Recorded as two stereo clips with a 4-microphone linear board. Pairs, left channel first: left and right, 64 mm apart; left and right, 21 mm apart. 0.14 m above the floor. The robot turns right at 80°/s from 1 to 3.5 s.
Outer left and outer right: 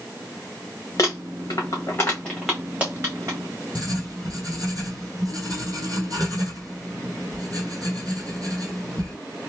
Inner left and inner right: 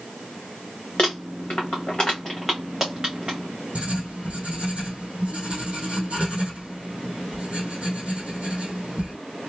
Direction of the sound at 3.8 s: 75° right (ahead or behind).